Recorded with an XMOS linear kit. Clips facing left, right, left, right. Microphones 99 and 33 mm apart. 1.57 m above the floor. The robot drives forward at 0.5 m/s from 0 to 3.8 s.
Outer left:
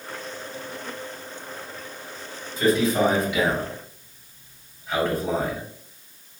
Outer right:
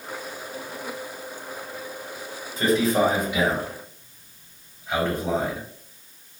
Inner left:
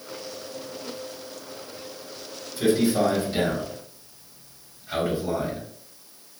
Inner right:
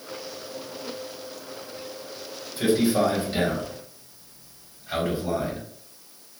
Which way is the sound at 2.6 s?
30° right (ahead or behind).